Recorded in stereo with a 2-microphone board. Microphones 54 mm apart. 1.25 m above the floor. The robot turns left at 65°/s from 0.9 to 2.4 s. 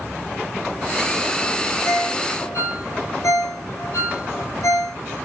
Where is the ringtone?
45° left (ahead or behind), 8 m; by 5.0 s 80° left, 8 m.